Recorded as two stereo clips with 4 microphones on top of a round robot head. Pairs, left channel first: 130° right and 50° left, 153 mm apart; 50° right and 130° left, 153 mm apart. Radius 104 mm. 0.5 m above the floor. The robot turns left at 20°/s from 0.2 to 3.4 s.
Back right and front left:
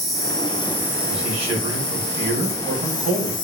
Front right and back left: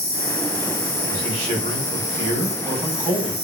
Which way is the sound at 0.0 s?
45° right.